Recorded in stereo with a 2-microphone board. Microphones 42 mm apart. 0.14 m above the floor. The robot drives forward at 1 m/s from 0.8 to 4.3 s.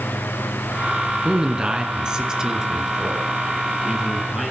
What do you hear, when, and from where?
1.2 s a man speaking: 20° right (ahead or behind), 1.5 m; by 4.5 s 10° right (ahead or behind), 3.5 m